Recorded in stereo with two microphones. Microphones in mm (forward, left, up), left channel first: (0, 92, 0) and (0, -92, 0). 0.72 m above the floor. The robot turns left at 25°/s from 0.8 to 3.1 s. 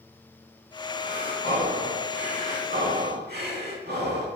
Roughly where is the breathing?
Ahead right.